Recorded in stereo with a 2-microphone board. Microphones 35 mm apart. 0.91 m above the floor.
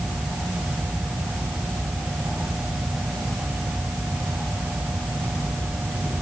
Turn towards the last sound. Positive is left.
No sound to turn to.